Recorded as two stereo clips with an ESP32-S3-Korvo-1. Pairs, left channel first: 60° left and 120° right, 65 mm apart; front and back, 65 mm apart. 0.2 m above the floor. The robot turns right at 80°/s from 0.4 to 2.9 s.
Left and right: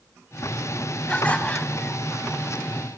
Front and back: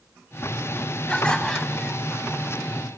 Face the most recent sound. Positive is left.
turn(degrees=180)